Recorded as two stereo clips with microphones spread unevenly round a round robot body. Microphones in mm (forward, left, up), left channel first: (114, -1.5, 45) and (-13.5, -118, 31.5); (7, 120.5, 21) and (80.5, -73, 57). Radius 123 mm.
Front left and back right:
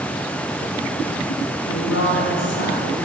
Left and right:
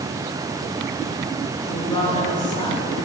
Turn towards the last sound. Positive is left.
turn(degrees=40)